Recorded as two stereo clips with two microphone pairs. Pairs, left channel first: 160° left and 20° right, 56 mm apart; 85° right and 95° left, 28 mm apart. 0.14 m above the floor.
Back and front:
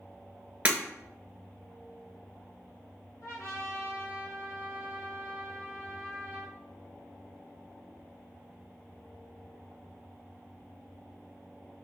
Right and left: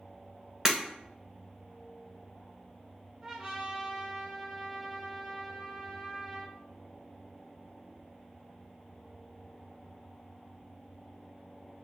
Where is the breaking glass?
40° left, 1.2 m.